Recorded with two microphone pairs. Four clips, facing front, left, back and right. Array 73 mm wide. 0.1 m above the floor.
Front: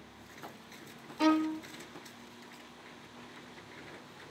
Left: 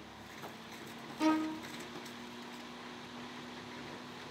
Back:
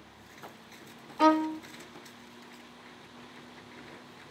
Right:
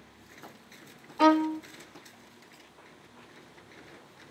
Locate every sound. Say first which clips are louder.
1.2 s a violin: right 9 dB, back 4 dB; 120° right, 0.6 m